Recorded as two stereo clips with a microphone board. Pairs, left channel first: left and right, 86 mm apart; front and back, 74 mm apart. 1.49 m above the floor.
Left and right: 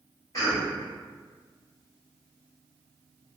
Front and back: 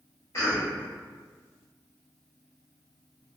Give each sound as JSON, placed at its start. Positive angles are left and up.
{"t": 0.3, "sound": "a cough", "azimuth_deg": 40, "distance_m": 2.0}